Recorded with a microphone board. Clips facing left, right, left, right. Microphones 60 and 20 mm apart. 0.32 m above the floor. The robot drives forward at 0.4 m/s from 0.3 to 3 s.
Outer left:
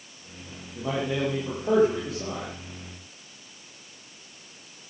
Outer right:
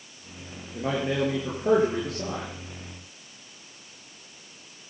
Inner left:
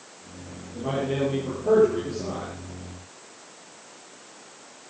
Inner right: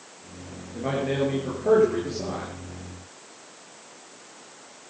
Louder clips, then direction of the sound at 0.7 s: Outer right 1 dB, inner right 1 dB; 70° right (ahead or behind).